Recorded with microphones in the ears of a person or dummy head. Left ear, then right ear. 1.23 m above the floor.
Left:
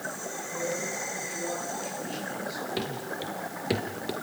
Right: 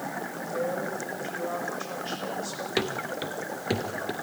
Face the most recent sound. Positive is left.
turn(degrees=15)  # may be behind; listen again after turning